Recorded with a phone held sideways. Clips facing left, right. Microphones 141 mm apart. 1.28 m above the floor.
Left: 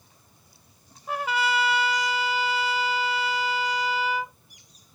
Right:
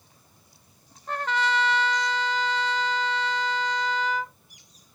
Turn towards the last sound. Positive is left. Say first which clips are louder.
# even
turn(degrees=10)  # may be behind; listen again after turning